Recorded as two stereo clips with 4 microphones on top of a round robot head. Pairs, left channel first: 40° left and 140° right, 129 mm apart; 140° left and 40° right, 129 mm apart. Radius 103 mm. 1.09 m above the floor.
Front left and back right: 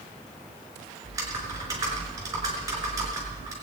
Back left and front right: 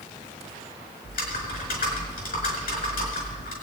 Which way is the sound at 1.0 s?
155° left.